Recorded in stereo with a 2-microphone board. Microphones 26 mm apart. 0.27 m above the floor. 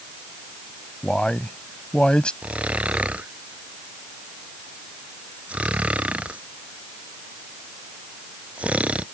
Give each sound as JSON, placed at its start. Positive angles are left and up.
{"t": 1.0, "sound": "a man speaking", "side_deg": 45}
{"t": 2.4, "sound": "snoring", "side_deg": -65}